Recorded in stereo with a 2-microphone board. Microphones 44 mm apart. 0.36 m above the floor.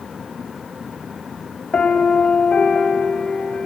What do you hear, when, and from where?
1.7 s a piano: 25° left (ahead or behind), 1.7 m